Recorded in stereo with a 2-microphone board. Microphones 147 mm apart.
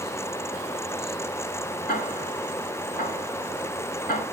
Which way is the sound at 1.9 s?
85° left.